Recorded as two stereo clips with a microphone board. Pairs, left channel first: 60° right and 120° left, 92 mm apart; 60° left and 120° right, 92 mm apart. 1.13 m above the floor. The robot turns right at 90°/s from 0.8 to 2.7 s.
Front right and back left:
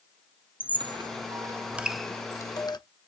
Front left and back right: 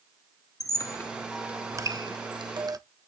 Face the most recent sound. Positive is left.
turn(degrees=-85)